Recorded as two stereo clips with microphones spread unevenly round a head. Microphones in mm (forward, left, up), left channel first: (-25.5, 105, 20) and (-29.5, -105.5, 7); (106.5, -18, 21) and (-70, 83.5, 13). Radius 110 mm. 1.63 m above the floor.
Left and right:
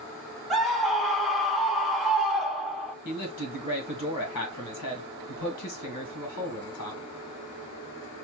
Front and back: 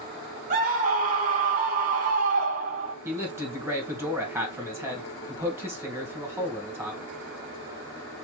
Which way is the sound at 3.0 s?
70° left.